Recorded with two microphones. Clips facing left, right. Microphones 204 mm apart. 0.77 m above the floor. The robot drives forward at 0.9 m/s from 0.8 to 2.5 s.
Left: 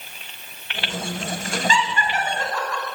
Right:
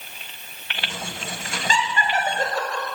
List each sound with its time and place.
1.7 s laughter: 45° right (ahead or behind), 3.5 m; by 2.9 s 35° right (ahead or behind), 4 m